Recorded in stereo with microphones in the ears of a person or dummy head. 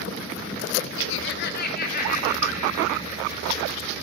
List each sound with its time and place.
1.0 s laughter: 70° left (ahead or behind), 0.6 m; by 3.9 s 40° left (ahead or behind), 5 m